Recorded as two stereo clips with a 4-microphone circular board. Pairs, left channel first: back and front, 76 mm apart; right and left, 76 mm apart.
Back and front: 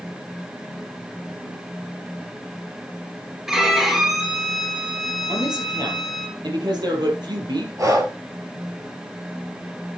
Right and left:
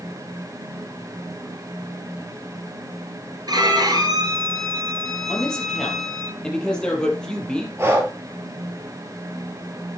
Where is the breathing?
40° left, 3 m.